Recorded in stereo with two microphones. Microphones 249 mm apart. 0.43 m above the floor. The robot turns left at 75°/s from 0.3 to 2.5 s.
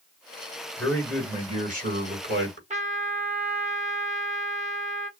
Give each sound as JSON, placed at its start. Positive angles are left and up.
{"t": 0.8, "sound": "a man speaking", "azimuth_deg": 25, "distance_m": 2.0}
{"t": 2.7, "sound": "a trumpet", "side_deg": -30, "distance_m": 1.0}